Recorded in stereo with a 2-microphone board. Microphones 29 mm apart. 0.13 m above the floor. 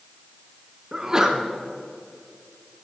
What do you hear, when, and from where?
0.9 s a sneeze: 20° right (ahead or behind), 1.2 m